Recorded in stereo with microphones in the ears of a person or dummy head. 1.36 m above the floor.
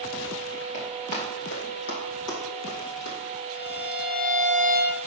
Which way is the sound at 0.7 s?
45° left (ahead or behind).